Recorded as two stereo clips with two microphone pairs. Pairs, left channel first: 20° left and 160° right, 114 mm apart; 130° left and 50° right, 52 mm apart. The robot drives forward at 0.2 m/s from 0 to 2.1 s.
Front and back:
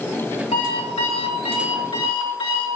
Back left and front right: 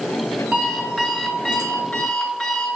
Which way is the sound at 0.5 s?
55° left.